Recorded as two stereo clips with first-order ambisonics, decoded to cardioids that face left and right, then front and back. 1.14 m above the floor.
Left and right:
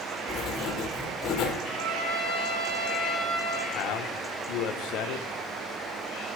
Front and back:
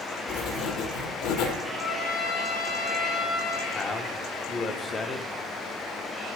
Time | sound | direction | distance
0.3 | writing | 35° left | 1.4 m
1.6 | a trumpet | 30° right | 4 m
3.7 | a man speaking | 70° left | 0.8 m